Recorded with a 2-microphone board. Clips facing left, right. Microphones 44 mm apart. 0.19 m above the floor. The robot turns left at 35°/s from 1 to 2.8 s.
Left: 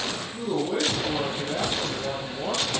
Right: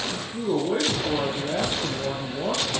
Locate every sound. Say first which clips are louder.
0.1 s a man speaking: right 2 dB; 35° right, 7.5 m; by 2.7 s 95° right, 7.5 m